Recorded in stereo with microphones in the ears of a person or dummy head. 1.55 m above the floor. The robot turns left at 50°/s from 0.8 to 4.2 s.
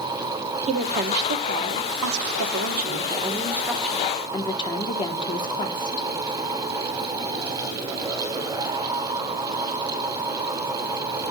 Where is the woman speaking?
30° right, 1.5 m; by 6.1 s 160° left, 1.5 m.